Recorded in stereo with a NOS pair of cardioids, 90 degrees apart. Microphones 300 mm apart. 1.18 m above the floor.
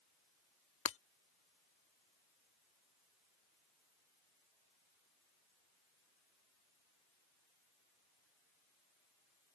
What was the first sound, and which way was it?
Breaking glass, 45° left.